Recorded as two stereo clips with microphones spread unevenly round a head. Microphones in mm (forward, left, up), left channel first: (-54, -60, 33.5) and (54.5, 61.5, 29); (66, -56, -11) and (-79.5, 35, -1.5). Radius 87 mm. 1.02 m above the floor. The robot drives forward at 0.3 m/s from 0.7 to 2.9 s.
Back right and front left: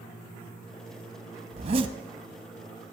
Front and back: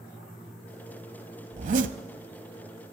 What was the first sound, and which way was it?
A zipper, 100° left.